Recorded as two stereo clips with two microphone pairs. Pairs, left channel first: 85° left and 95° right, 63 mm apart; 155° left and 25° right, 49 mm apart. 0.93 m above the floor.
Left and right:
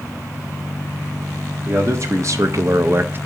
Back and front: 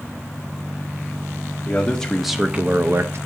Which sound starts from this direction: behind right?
A man speaking, at 1.6 s.